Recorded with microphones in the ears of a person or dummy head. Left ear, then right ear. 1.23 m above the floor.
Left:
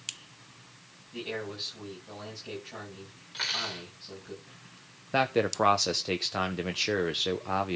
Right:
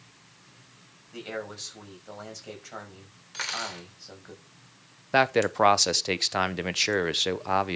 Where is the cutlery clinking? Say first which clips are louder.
Left 1 dB; 35° right (ahead or behind), 2.5 m.